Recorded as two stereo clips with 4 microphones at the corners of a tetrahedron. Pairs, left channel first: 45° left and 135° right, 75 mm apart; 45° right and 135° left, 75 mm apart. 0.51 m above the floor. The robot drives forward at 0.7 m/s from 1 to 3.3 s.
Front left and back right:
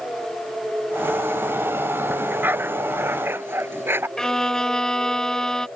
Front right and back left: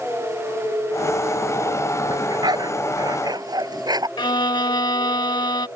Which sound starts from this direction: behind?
A dog barking, at 2.1 s.